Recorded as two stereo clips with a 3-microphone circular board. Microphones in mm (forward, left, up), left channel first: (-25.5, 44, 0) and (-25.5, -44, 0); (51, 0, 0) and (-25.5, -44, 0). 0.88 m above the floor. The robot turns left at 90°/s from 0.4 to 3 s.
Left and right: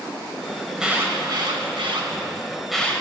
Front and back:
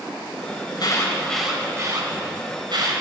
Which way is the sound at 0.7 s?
5° left.